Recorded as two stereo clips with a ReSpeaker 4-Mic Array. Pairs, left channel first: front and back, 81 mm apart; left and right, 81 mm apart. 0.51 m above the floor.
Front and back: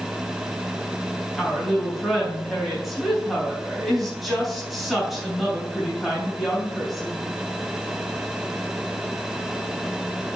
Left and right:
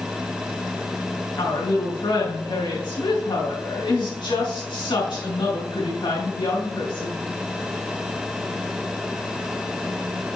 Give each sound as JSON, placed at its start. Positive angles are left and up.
{"t": 1.4, "sound": "a woman speaking", "azimuth_deg": 90, "distance_m": 4.0}